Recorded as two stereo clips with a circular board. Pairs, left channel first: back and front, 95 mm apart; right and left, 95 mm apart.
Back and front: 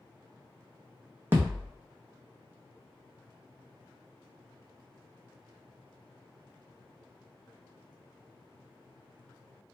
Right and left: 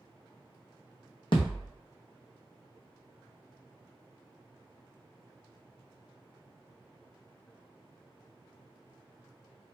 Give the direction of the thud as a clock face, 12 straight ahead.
2 o'clock.